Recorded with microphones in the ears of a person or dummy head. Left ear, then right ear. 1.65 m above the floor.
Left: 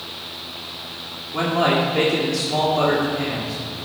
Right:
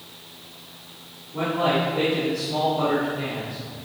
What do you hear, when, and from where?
1.3 s a man speaking: 50° left (ahead or behind), 1.8 m